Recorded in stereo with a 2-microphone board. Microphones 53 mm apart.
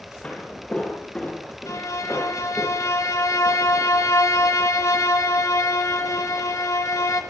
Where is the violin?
75° left (ahead or behind), 1.9 m.